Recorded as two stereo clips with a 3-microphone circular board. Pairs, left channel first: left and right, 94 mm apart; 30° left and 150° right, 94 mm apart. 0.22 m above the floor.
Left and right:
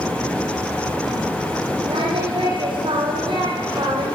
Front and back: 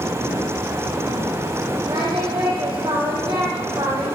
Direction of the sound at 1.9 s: 120° right.